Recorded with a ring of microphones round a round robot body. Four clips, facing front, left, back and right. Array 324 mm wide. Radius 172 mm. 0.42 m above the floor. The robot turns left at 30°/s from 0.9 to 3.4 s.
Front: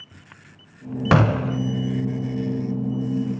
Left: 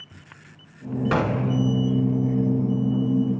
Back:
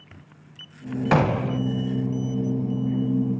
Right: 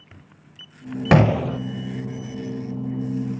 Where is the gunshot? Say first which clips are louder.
Right 6 dB, front 2 dB; 60° right, 0.5 m; by 1.6 s 75° right, 0.5 m.